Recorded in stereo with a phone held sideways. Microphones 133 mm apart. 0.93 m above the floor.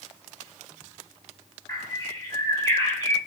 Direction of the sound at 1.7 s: 25° left (ahead or behind).